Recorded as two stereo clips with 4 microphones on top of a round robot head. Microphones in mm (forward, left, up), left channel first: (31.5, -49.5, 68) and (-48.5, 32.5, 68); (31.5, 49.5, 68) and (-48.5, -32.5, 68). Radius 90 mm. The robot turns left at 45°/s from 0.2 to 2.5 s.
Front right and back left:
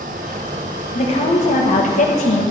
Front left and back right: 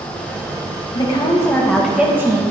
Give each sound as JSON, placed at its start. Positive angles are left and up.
{"t": 0.9, "sound": "a woman speaking", "azimuth_deg": -5, "distance_m": 1.5}